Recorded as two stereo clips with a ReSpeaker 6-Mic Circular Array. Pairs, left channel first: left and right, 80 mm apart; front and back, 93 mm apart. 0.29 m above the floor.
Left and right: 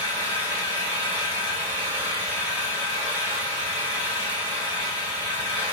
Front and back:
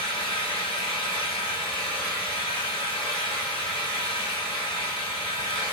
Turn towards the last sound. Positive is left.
turn(degrees=-20)